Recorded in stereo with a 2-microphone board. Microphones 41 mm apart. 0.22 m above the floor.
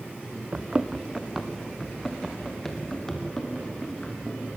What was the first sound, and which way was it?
Running footsteps, 30° right (ahead or behind).